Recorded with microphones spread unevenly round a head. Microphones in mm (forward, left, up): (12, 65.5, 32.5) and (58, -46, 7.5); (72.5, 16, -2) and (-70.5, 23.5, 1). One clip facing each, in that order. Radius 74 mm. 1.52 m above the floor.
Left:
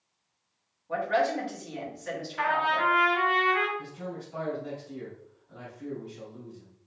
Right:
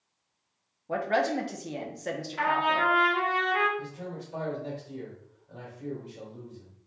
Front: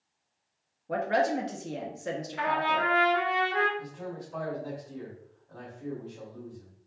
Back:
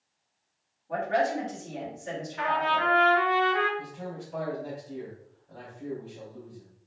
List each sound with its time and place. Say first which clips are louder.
0.9 s a woman speaking: even, even; 25° right, 1.1 m
2.4 s a trumpet: even, back 1 dB; 35° right, 2 m
3.8 s a man speaking: even, back 1 dB; 105° right, 2.5 m